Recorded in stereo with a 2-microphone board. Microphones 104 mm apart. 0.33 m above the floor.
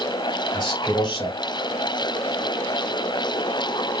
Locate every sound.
0.5 s a man speaking: 45° left (ahead or behind), 1.6 m